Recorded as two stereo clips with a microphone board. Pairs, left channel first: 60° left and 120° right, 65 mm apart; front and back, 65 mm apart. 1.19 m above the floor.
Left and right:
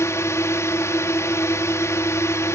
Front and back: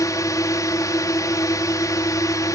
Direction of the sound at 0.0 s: 20° left.